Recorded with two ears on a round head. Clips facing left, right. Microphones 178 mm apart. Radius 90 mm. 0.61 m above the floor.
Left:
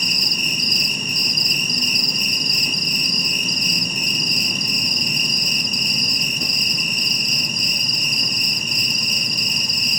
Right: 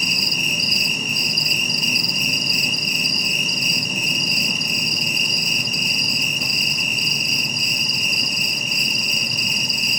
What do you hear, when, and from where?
0.0 s an insect: 5° right (ahead or behind), 4.5 m